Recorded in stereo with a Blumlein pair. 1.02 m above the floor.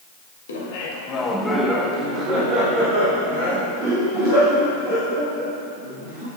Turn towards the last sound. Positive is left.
turn(degrees=-55)